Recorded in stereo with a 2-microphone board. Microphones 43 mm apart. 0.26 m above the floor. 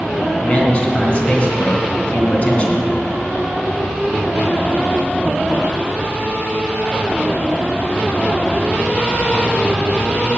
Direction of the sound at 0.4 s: 35° left (ahead or behind).